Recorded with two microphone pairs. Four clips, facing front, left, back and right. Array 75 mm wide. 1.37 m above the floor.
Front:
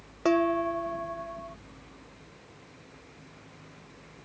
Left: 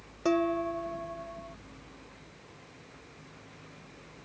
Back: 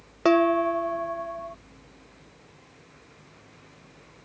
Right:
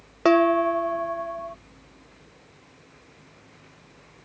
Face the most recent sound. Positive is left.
turn(degrees=-110)